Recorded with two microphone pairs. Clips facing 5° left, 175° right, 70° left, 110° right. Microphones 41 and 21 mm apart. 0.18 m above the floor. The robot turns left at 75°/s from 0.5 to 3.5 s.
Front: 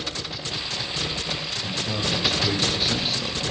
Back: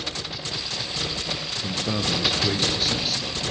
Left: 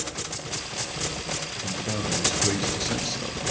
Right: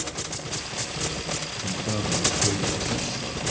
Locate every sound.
1.6 s a man speaking: 175° left, 3.5 m; by 3.4 s 40° left, 3.5 m